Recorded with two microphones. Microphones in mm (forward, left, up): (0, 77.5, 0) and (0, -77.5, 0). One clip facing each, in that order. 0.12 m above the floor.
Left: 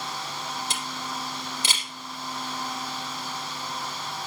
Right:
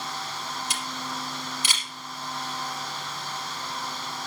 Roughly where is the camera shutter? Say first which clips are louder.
Even; left.